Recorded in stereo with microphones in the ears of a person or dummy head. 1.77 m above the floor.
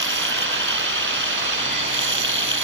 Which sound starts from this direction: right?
Running water, at 0.0 s.